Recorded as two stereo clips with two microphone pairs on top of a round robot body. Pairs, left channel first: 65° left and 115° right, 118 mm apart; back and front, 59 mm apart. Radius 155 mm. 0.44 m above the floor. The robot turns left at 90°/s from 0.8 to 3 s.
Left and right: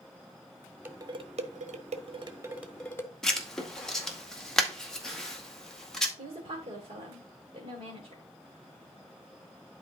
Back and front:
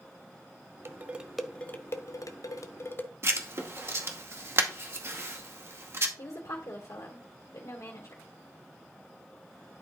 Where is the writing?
15° right, 2 m.